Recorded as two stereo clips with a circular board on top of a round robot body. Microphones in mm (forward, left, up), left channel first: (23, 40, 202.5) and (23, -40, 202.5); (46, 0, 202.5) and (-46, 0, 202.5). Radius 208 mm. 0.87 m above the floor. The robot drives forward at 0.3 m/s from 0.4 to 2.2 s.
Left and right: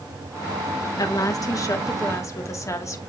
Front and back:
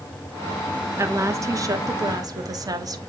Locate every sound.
1.0 s a woman speaking: 125° left, 1.3 m; by 3.0 s 135° left, 1.5 m